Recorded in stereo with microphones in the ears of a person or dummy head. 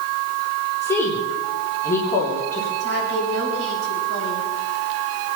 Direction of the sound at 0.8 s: 15° left (ahead or behind).